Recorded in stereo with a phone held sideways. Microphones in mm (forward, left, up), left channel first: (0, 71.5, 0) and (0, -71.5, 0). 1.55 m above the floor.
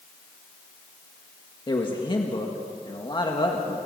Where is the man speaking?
35° left (ahead or behind), 2.0 m.